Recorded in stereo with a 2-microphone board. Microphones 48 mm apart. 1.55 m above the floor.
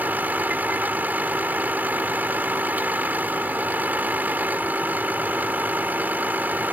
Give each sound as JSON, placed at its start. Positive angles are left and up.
{"t": 0.0, "sound": "a vehicle", "side_deg": -40}